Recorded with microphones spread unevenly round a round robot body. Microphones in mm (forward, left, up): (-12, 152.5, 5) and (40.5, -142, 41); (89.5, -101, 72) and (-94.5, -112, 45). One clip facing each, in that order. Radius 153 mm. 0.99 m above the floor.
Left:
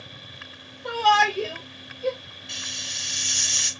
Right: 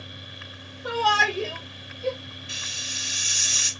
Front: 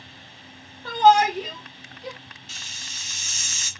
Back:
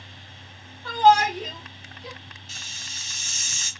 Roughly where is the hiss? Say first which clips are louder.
Even, even; ahead.